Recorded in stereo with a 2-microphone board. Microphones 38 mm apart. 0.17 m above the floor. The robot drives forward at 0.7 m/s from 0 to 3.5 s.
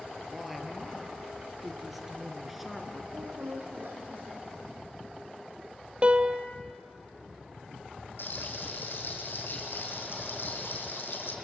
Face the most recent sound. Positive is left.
turn(degrees=75)  # may be behind; listen again after turning